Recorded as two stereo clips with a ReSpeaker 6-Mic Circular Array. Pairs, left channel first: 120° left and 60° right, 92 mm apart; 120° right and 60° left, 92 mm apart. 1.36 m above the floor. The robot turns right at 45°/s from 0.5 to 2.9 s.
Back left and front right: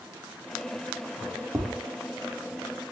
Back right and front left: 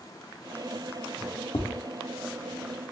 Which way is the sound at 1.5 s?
120° right.